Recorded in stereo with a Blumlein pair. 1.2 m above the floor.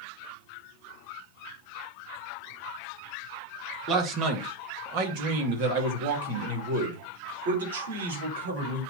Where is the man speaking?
30° right, 1.9 m; by 8.9 s 65° right, 4 m.